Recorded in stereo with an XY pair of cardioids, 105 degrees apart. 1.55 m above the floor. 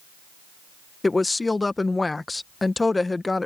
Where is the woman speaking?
20° left.